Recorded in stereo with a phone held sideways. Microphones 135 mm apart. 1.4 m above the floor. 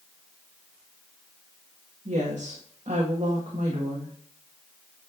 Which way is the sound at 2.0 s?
60° right (ahead or behind).